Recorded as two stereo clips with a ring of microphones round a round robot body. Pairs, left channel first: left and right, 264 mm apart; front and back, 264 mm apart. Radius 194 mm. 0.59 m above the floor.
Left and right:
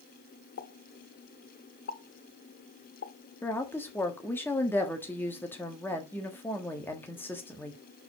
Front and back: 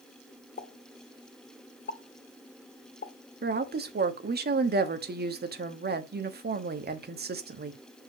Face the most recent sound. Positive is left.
turn(degrees=165)